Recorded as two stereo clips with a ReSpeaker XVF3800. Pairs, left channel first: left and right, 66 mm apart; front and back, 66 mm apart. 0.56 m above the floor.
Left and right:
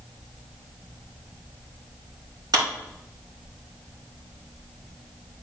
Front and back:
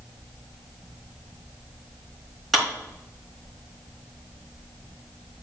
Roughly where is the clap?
Right.